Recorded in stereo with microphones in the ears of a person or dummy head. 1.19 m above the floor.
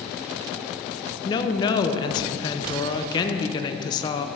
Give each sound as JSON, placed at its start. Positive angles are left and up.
{"t": 1.2, "sound": "a woman speaking", "side_deg": 25, "distance_m": 0.7}